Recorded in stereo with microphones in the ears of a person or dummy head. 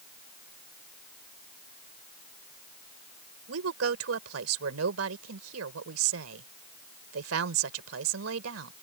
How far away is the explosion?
No explosion in this recording.